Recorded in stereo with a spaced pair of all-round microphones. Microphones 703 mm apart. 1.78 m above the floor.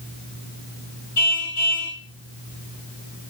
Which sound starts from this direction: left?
A car horn, at 1.2 s.